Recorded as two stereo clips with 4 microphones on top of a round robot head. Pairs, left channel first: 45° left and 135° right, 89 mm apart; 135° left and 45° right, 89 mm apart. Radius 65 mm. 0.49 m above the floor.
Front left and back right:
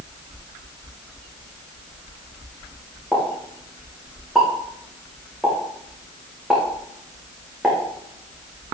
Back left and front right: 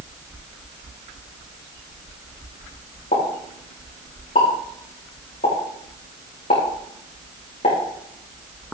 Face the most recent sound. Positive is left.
turn(degrees=135)